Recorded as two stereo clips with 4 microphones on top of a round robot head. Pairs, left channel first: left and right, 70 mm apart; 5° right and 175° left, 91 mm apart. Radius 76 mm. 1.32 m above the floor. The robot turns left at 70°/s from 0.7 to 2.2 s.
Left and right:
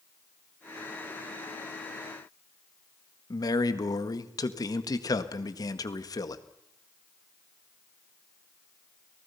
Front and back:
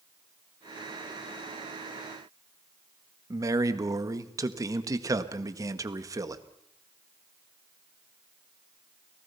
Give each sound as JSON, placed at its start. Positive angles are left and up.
{"t": 3.3, "sound": "a man speaking", "azimuth_deg": 125, "distance_m": 1.7}